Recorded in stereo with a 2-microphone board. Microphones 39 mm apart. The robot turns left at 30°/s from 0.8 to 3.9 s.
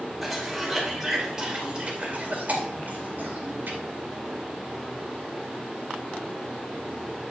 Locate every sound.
0.2 s a cough: centre (ahead or behind), 2 m; by 3.8 s 70° right (ahead or behind), 2 m